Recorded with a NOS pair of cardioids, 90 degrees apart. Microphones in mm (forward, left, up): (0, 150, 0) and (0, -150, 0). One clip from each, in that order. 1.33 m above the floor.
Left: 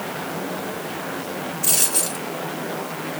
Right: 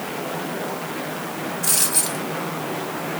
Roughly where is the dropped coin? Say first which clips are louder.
Even; ahead.